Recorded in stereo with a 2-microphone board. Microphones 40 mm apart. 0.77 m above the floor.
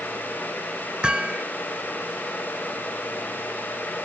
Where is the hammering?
25° right (ahead or behind).